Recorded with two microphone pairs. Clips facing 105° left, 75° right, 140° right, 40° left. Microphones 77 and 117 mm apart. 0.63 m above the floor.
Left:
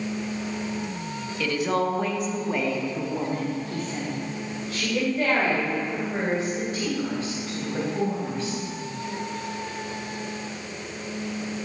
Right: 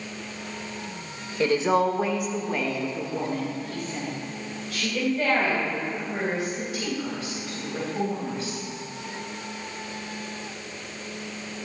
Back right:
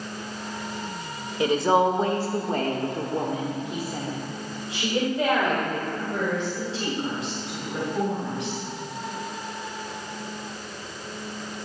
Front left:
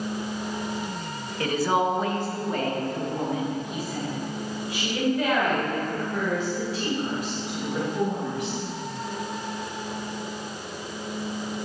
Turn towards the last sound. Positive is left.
turn(degrees=155)